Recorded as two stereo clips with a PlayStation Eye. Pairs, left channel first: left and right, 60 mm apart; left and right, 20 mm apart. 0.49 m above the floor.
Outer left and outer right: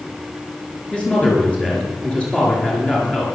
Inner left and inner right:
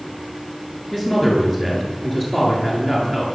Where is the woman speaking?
15° left (ahead or behind), 7.5 m.